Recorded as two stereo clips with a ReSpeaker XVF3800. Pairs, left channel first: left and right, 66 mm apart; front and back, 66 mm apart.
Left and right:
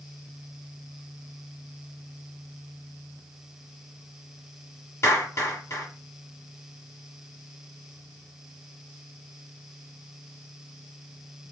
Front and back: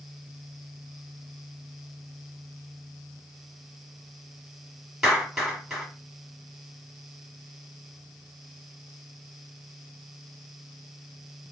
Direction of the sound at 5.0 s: 100° left.